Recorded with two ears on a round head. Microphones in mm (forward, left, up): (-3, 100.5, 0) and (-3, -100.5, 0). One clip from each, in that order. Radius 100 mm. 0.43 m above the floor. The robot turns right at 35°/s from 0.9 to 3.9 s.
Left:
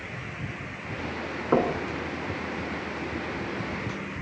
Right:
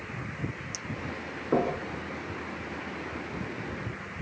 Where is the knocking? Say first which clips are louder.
Left 3 dB; 70° left (ahead or behind), 3 m; by 1.8 s 65° left (ahead or behind), 3 m.